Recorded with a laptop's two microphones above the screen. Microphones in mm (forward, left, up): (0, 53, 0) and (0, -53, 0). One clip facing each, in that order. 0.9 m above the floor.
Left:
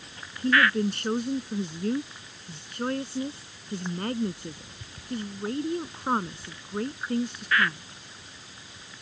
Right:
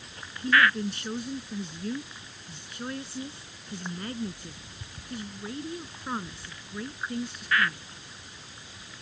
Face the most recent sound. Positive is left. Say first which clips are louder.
# left 1 dB
turn(degrees=50)  # may be behind; listen again after turning